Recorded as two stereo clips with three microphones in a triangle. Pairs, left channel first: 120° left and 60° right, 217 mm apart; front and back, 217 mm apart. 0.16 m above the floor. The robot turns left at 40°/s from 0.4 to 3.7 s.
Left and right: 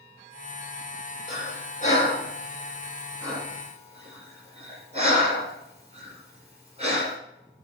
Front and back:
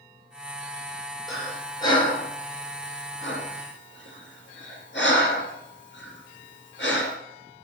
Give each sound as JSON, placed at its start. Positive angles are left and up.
{"t": 1.3, "sound": "breathing", "azimuth_deg": 90, "distance_m": 3.0}